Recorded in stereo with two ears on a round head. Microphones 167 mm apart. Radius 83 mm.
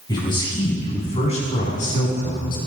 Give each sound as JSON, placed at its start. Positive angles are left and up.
{"t": 0.1, "sound": "a man speaking", "side_deg": 25, "distance_m": 5.5}